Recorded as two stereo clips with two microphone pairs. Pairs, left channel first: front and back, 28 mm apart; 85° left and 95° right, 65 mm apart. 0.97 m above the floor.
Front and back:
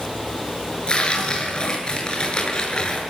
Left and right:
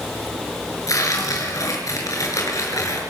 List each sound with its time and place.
0.9 s tearing paper: 60° left, 7.5 m